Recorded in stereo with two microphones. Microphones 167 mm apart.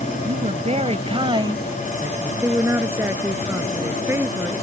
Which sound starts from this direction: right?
A woman speaking, at 0.2 s.